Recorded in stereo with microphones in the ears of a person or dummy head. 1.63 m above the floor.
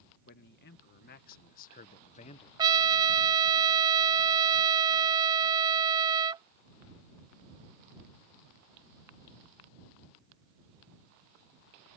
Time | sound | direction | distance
0.3 | a man speaking | 60° left (ahead or behind) | ?
2.6 | a trumpet | 25° right (ahead or behind) | ?